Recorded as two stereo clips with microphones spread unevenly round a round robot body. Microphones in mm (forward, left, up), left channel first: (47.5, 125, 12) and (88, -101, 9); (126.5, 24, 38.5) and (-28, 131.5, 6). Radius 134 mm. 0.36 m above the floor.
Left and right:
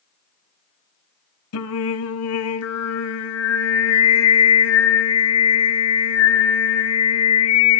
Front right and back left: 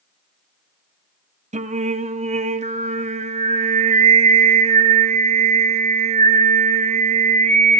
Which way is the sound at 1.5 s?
100° left.